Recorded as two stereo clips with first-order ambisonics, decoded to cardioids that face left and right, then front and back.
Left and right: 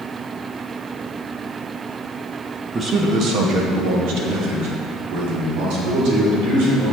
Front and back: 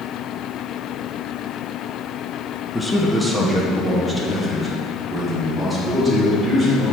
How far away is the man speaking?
About 0.8 m.